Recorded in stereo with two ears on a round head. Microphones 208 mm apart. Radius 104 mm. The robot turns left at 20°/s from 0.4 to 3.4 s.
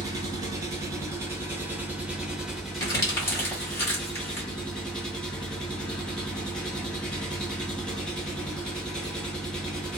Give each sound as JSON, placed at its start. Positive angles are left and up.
{"t": 0.0, "sound": "an engine running", "side_deg": -15, "distance_m": 0.9}
{"t": 2.8, "sound": "crumpling", "side_deg": 15, "distance_m": 1.4}